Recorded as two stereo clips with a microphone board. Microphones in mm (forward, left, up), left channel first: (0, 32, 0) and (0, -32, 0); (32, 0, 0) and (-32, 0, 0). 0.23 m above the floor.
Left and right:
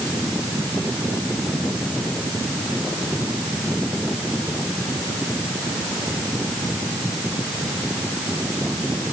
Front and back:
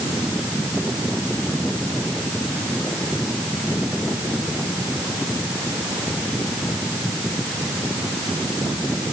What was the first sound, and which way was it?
Only background noise.